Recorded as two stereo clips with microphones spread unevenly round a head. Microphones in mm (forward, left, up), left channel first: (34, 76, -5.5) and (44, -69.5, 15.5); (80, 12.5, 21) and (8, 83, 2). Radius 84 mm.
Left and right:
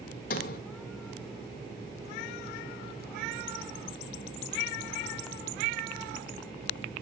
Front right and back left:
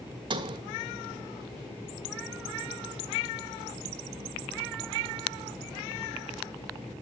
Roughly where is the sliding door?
Left.